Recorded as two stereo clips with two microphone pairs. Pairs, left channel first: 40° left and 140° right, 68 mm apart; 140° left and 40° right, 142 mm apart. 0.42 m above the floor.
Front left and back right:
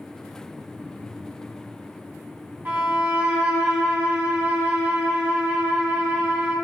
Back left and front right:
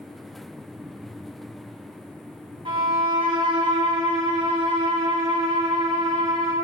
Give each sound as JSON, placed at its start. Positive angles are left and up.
{"t": 2.6, "sound": "a violin", "azimuth_deg": -85, "distance_m": 2.5}